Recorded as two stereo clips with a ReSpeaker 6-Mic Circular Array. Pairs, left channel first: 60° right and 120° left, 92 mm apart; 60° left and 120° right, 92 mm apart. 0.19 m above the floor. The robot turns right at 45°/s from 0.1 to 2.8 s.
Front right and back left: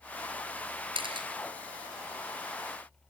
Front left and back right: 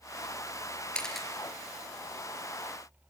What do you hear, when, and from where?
0.9 s a camera shutter: 135° left, 3.5 m; by 1.3 s 150° left, 3.5 m